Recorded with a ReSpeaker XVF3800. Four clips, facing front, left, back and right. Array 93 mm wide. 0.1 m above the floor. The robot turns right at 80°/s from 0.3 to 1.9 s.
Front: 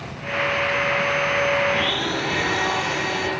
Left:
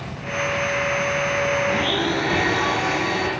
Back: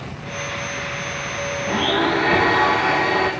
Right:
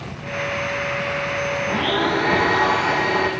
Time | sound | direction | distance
1.7 | a blender | 150° right | 5.5 m